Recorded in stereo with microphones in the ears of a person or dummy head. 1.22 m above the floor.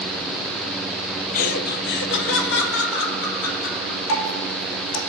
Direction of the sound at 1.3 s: 40° left (ahead or behind).